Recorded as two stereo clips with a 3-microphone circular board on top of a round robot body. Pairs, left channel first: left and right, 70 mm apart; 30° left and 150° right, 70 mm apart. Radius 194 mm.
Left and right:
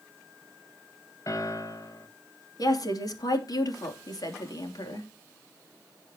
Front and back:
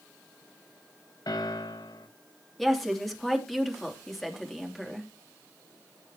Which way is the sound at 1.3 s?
50° left.